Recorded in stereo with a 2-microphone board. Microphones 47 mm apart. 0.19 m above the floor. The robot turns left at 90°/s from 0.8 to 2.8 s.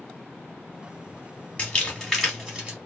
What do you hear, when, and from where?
1.6 s crumpling: 25° left (ahead or behind), 1.5 m; by 2.8 s 20° right (ahead or behind), 1.5 m